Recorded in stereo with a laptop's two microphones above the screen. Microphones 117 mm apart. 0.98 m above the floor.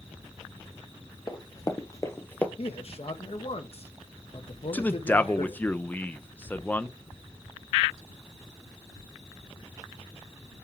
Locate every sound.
1.3 s running footsteps: 35° left (ahead or behind), 1.6 m; by 2.5 s 15° left (ahead or behind), 1.1 m
2.6 s a man speaking: 55° left (ahead or behind), 1.1 m
4.7 s a man speaking: 15° left (ahead or behind), 0.5 m